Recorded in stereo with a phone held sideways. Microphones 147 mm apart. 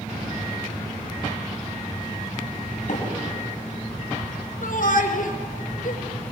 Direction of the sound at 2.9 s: 60° left (ahead or behind).